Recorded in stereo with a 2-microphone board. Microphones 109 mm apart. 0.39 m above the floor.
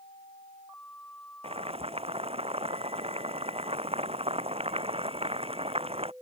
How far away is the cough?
I don't hear a cough.